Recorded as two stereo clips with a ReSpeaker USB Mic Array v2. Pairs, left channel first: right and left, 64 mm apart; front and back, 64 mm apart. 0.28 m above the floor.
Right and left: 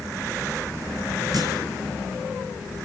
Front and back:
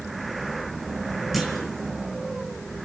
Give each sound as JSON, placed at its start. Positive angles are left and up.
{"t": 1.3, "sound": "a clunk", "azimuth_deg": 90, "distance_m": 4.5}